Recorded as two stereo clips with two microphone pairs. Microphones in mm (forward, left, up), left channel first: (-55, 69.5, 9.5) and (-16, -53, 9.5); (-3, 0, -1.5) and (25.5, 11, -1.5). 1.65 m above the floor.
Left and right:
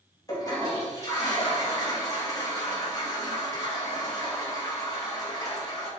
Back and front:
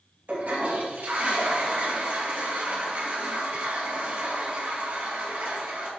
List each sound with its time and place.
0.3 s a toilet flushing: 45° left, 2.5 m